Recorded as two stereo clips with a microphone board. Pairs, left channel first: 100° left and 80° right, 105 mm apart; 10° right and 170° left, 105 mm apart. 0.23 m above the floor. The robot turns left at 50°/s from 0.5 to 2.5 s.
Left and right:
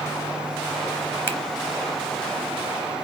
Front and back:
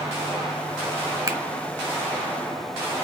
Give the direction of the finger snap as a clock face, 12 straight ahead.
7 o'clock.